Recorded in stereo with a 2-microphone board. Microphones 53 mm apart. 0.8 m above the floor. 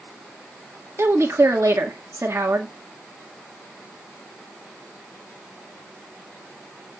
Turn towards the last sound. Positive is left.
turn(degrees=-60)  # may be behind; listen again after turning